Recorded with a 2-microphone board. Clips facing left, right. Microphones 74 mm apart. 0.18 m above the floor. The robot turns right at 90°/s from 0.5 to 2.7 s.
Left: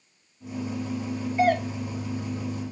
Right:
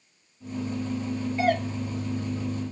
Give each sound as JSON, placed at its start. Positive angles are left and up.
{"t": 1.4, "sound": "a doorbell", "side_deg": 20, "distance_m": 1.6}